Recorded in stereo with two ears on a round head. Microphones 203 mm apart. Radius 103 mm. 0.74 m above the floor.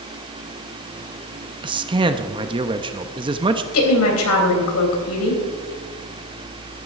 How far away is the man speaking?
About 0.7 m.